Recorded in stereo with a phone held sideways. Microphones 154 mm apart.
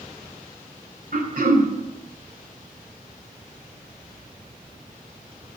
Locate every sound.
1.1 s throat clearing: 70° right (ahead or behind), 2.5 m